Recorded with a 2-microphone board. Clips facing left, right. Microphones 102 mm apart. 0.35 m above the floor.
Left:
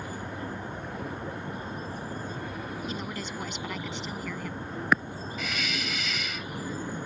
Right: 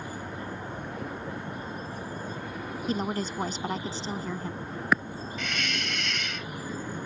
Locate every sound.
2.9 s a woman speaking: 40° right (ahead or behind); by 4.6 s 30° right (ahead or behind)
5.4 s a hiss: 5° left (ahead or behind)